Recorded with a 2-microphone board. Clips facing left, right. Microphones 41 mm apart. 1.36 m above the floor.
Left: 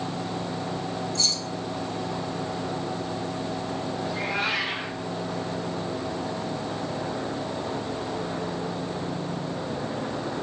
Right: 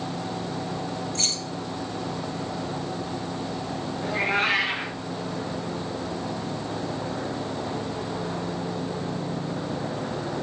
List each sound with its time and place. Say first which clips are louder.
1.1 s keys jangling: left 1 dB; 50° right (ahead or behind), 0.8 m
4.0 s a cat meowing: right 6 dB; 60° right (ahead or behind), 2.5 m